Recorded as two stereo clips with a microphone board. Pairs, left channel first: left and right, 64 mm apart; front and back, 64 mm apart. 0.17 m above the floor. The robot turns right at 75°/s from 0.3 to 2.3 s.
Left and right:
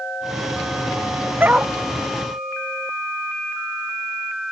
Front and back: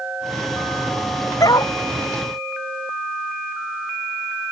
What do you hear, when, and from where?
1.4 s a dog barking: 30° right; by 1.7 s 5° right